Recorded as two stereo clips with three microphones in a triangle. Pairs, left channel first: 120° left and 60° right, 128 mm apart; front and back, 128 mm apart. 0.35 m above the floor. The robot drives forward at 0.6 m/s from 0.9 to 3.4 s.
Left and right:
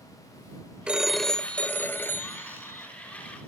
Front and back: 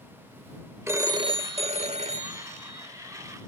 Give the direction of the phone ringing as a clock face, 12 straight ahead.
4 o'clock.